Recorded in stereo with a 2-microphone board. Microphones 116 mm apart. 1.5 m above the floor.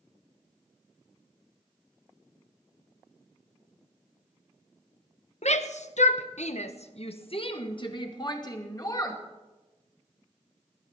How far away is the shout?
About 1.2 m.